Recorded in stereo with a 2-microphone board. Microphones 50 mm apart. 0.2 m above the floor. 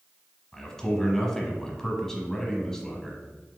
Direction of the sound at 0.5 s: 10° left (ahead or behind).